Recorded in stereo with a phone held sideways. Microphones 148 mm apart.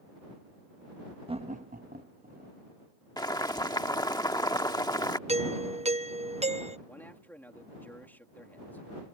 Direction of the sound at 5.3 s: 45° right (ahead or behind).